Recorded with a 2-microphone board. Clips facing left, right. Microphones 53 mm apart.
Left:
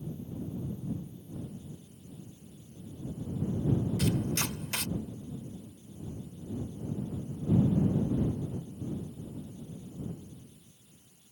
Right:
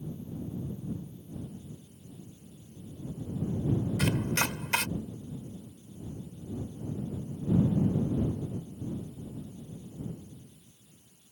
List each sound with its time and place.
4.0 s chopping: 55° right (ahead or behind)